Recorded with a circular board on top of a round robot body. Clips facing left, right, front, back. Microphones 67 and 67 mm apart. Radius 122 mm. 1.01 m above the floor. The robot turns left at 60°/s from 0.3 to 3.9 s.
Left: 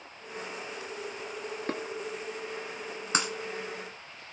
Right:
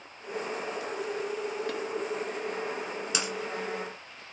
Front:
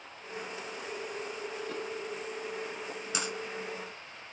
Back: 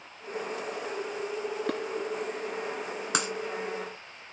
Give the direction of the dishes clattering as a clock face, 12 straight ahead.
7 o'clock.